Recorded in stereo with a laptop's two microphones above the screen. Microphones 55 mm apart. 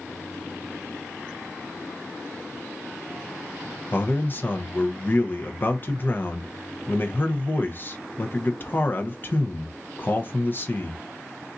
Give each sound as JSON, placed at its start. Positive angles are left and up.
{"t": 3.9, "sound": "a man speaking", "side_deg": 40, "distance_m": 0.6}